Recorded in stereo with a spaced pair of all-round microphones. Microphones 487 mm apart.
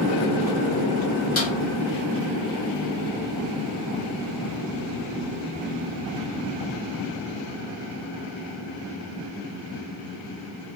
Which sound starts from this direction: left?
A snare drum, at 1.4 s.